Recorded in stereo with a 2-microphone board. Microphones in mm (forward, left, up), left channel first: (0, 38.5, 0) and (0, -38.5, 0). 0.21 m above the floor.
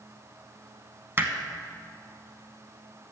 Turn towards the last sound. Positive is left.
turn(degrees=-30)  # may be behind; listen again after turning